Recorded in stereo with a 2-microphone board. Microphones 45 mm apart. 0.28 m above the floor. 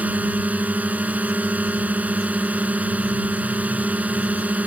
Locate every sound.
0.0 s a drone: 35° right (ahead or behind)